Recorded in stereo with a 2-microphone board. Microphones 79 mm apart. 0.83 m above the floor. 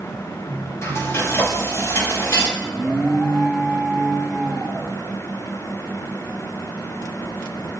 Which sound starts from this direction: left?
Frying, at 0.8 s.